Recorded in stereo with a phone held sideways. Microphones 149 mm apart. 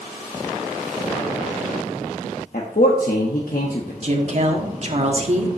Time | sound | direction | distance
2.5 | a man speaking | 75° left (ahead or behind) | 1.0 m
4.0 | a woman speaking | 50° right (ahead or behind) | 1.4 m